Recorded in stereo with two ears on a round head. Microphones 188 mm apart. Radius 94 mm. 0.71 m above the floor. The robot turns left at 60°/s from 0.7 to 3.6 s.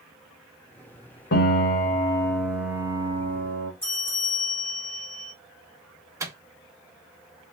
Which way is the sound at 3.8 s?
10° left (ahead or behind).